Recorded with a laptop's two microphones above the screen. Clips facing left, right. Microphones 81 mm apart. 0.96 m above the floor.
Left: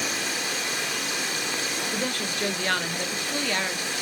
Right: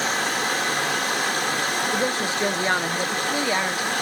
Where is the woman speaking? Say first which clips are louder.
Right 6 dB; 20° right (ahead or behind), 0.8 m.